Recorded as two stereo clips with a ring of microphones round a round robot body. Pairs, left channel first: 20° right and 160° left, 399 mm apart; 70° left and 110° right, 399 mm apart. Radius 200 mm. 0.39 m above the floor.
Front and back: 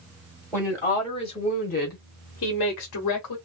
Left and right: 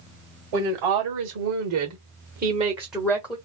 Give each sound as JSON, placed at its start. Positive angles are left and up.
{"t": 0.5, "sound": "a woman speaking", "azimuth_deg": -105, "distance_m": 1.6}